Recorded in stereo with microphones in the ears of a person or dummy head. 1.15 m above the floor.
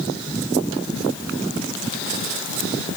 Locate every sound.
Only background noise.